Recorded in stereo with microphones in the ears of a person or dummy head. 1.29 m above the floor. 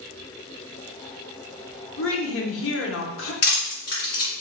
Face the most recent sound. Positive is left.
turn(degrees=50)  # may be behind; listen again after turning